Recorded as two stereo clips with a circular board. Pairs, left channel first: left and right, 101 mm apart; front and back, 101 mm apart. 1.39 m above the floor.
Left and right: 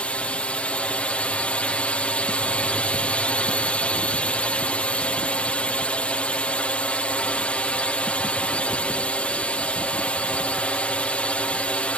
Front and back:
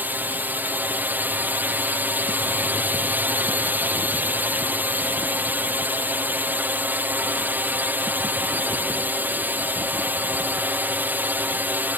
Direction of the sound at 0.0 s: 145° left.